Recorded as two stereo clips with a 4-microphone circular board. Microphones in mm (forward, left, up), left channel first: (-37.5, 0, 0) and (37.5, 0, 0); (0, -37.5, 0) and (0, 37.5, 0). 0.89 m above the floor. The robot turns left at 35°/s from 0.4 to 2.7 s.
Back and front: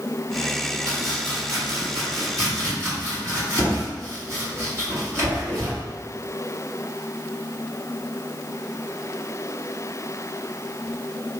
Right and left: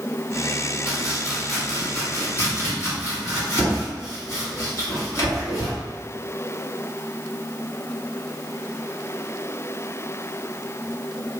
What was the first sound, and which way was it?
Chopping, 20° left.